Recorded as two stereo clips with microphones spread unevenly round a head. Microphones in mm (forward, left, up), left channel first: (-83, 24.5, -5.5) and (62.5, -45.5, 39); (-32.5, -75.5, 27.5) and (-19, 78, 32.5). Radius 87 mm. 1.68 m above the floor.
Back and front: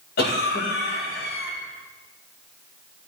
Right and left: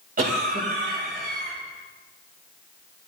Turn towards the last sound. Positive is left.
turn(degrees=120)